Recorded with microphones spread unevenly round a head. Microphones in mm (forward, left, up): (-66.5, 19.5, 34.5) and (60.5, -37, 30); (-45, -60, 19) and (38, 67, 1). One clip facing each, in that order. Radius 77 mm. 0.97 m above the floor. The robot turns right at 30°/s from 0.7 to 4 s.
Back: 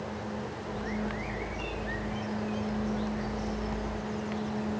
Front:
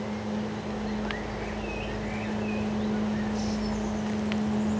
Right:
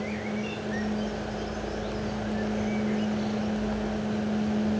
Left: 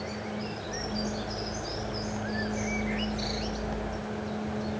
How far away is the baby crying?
No baby crying in this recording.